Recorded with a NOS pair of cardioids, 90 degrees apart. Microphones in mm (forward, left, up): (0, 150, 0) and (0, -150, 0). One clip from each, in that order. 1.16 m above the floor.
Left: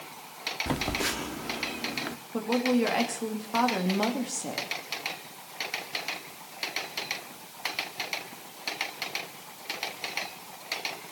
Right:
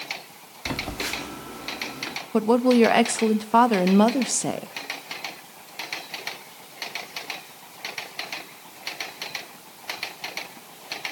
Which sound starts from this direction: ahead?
A phone buzzing, at 0.7 s.